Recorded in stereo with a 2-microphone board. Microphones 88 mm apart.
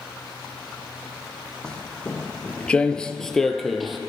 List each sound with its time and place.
1.6 s footsteps: 10° left (ahead or behind), 1.5 m; by 4.0 s centre (ahead or behind), 1.2 m